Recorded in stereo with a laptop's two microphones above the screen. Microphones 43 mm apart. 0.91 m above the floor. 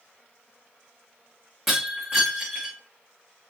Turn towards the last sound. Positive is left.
turn(degrees=-5)  # may be behind; listen again after turning